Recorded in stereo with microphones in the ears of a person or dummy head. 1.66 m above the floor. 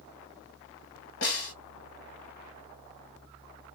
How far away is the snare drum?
About 1.1 m.